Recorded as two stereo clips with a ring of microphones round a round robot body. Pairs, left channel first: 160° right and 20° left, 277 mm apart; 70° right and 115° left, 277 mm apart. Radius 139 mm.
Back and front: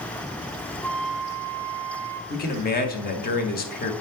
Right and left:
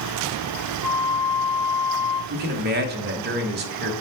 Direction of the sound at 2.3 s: 155° left.